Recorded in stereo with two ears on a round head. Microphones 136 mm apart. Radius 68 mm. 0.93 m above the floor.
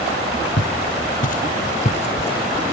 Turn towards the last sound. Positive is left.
turn(degrees=25)  # may be behind; listen again after turning